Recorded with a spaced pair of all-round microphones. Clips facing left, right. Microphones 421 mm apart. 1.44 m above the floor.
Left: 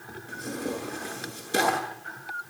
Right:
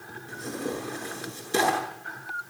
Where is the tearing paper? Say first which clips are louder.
Even; 10° right (ahead or behind), 8 m.